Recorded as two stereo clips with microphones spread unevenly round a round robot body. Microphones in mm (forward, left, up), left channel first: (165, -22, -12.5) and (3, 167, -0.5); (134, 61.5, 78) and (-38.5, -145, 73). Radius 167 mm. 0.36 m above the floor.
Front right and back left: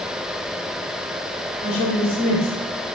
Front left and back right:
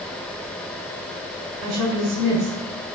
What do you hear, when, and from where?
1.6 s a woman speaking: 160° right, 5 m